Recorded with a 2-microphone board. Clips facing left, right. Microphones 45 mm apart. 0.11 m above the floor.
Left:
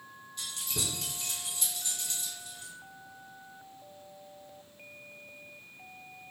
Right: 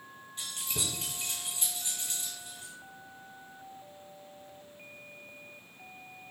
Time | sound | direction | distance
0.4 | keys jangling | 30° right (ahead or behind) | 1.3 m